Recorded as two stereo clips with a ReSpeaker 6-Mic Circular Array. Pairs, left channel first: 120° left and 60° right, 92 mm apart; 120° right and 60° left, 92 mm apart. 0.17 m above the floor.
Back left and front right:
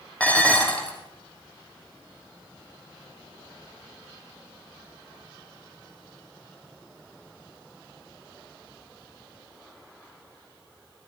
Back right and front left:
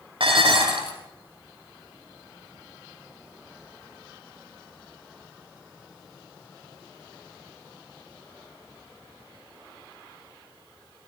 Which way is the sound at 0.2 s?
45° left.